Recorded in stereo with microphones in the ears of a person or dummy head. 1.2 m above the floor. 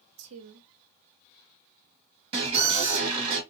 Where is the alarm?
30° right (ahead or behind), 1.3 m.